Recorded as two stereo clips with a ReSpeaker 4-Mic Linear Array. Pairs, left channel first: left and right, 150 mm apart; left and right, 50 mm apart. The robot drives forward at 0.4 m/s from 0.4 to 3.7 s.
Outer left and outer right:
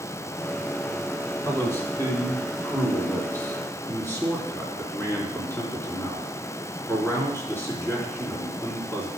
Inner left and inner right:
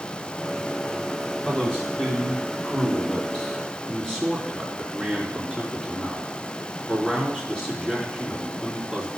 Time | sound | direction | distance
1.4 | a man speaking | 15° left (ahead or behind) | 3 m